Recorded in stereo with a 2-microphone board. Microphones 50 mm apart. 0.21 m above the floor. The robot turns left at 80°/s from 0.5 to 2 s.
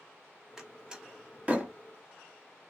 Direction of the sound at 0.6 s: 5° right (ahead or behind).